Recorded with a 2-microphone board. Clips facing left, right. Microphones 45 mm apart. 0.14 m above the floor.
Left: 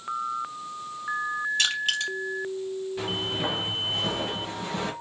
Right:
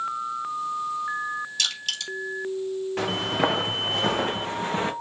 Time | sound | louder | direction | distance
1.6 | crushing | left 4 dB | 30° left (ahead or behind) | 3.5 m
3.0 | footsteps | right 6 dB | 85° right | 1.3 m